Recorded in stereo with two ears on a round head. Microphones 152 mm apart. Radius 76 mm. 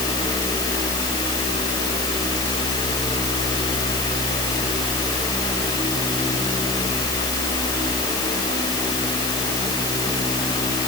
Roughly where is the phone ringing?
No phone ringing in this recording.